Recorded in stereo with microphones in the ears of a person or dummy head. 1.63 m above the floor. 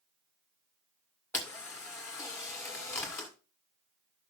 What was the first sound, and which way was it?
A camera shutter, 10° left (ahead or behind).